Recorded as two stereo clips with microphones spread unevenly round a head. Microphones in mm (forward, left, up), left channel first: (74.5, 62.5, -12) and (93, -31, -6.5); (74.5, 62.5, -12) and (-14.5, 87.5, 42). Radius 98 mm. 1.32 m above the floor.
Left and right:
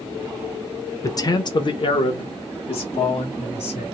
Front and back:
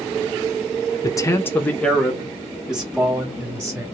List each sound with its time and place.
1.0 s a man speaking: 45° left, 0.8 m; by 3.9 s 95° left, 1.8 m